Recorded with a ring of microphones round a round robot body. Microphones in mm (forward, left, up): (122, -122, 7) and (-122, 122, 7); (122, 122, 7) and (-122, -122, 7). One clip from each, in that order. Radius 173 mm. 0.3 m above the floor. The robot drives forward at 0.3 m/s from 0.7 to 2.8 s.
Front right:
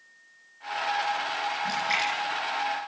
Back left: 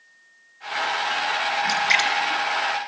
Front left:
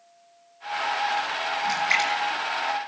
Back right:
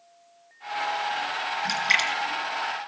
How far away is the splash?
About 5 m.